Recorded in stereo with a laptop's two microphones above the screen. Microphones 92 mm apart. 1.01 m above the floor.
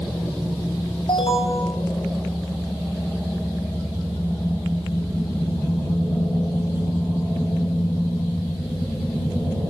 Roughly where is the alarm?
Left.